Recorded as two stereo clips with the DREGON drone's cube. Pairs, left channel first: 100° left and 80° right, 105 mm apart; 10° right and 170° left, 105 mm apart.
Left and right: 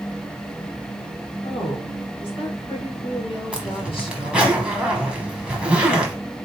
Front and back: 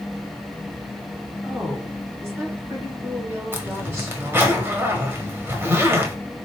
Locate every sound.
1.4 s a woman speaking: 110° left, 2.5 m
3.5 s a zipper: 145° right, 1.0 m